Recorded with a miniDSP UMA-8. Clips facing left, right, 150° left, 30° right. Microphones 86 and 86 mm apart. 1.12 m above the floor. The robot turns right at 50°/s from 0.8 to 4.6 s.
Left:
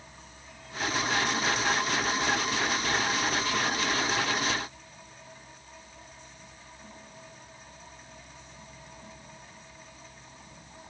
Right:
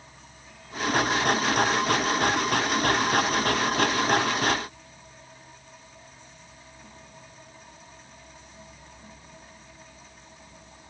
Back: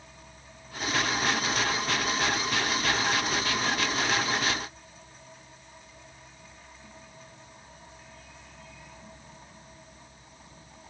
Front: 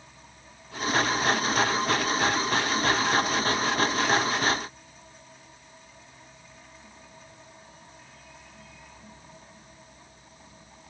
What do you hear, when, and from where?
Only background noise.